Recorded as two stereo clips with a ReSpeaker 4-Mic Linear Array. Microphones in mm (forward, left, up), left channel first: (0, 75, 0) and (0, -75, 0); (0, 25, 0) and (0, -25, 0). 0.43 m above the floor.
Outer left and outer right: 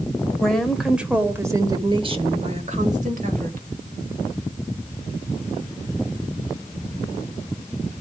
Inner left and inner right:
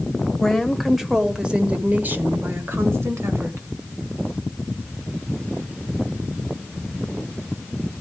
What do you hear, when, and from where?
0.4 s a woman speaking: 5° left (ahead or behind), 1.4 m; by 3.7 s 65° right (ahead or behind), 1.6 m